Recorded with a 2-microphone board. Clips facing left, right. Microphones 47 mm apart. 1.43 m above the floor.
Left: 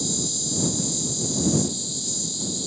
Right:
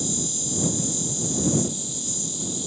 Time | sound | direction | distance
0.0 | an insect | 40° right (ahead or behind) | ?